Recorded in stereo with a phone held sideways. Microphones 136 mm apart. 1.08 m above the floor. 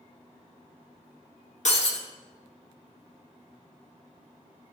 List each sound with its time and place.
1.6 s breaking glass: 60° left (ahead or behind), 1.9 m